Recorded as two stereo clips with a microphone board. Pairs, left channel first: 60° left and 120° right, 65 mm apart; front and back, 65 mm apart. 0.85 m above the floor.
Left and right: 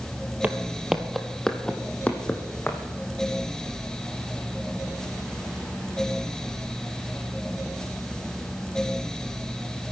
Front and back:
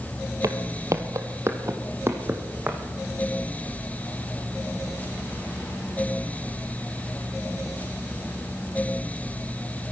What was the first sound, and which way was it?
Footsteps, straight behind.